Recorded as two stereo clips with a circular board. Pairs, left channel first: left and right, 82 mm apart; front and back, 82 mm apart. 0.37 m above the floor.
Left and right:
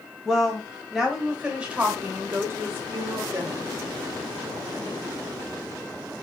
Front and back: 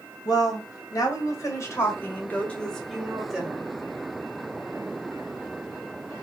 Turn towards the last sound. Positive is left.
turn(degrees=-115)